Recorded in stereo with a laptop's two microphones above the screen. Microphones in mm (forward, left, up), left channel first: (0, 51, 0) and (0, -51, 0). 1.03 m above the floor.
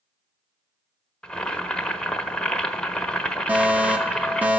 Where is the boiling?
10° left (ahead or behind), 1.2 m.